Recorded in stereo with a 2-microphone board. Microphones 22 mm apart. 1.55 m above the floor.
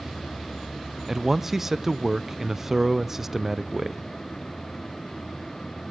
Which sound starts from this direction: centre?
A man speaking, at 1.1 s.